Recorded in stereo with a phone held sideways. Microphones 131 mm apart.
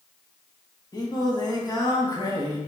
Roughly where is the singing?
Left.